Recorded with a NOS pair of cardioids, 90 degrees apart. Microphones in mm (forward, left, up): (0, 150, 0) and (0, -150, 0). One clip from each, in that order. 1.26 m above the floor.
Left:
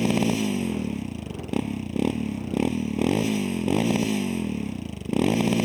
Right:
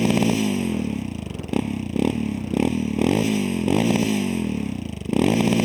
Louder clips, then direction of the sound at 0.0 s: Right 3 dB; 20° right.